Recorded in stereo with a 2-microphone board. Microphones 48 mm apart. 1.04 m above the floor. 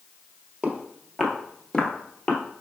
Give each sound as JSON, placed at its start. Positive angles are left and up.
{"t": 0.6, "sound": "footsteps", "side_deg": -25, "distance_m": 1.2}